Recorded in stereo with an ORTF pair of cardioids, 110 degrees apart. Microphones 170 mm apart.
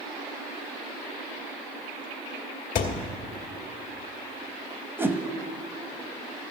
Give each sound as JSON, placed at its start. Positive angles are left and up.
{"t": 2.8, "sound": "a thud", "azimuth_deg": 60, "distance_m": 1.5}
{"t": 5.0, "sound": "a whoosh", "azimuth_deg": -10, "distance_m": 0.9}